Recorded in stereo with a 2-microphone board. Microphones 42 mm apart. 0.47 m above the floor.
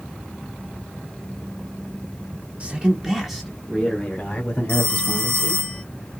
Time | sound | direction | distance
2.6 | a man speaking | 30° right (ahead or behind) | 1.5 m
4.7 | a phone ringing | 30° left (ahead or behind) | 2 m